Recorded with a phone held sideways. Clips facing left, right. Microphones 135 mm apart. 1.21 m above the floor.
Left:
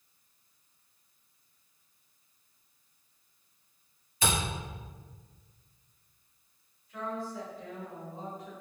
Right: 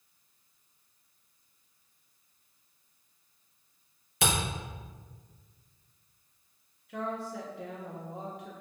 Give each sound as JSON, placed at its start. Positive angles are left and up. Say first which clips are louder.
{"t": 4.2, "sound": "a camera shutter", "louder": "right 1 dB", "side_deg": -80, "distance_m": 0.9}
{"t": 6.9, "sound": "a woman speaking", "louder": "right 1 dB", "side_deg": -75, "distance_m": 0.6}